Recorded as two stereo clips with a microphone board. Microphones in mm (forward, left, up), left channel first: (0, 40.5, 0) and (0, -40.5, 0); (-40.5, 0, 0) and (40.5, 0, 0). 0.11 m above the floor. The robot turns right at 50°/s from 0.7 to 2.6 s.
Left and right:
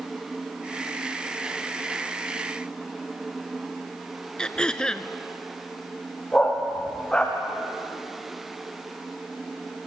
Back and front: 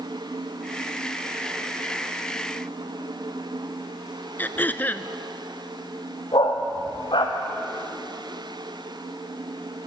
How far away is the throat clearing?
About 0.8 m.